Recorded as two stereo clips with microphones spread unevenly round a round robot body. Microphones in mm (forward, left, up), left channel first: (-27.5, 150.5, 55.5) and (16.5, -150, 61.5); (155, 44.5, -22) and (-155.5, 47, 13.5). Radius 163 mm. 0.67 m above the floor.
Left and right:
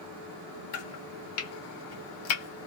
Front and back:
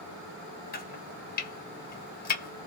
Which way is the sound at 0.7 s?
60° left.